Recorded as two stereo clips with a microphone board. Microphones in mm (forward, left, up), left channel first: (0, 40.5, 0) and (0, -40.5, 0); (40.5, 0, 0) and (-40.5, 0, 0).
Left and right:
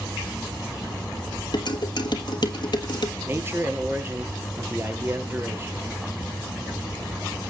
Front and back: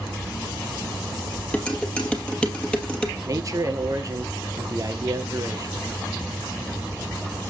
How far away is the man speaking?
About 2.5 m.